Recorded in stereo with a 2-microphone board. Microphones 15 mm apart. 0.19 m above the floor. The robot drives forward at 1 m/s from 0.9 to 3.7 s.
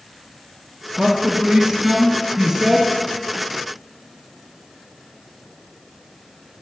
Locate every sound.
1.0 s a man speaking: 65° right (ahead or behind), 2.5 m; by 2.9 s 55° right (ahead or behind), 3 m